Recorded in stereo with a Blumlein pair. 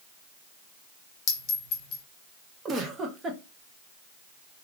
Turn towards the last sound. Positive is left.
turn(degrees=-20)